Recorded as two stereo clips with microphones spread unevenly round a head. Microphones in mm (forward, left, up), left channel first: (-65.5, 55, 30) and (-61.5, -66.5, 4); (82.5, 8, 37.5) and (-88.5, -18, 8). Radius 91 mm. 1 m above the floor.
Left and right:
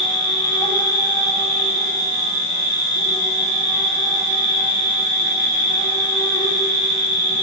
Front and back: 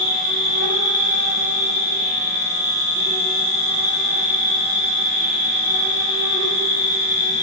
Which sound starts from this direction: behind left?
An insect, at 0.0 s.